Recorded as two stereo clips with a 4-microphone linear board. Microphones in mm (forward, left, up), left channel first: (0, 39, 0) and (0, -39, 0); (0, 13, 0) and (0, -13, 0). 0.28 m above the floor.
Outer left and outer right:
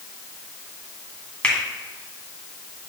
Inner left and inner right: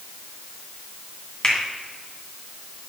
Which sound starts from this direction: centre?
A finger snap, at 1.4 s.